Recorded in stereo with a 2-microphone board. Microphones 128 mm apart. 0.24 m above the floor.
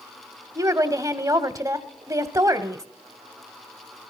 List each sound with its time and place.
0.6 s a woman speaking: 25° right (ahead or behind), 1.0 m